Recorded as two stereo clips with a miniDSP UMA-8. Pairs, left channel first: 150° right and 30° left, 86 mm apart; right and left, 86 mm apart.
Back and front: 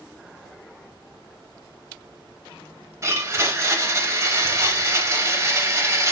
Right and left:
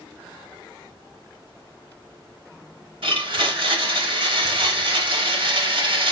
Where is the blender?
85° left, 0.8 m.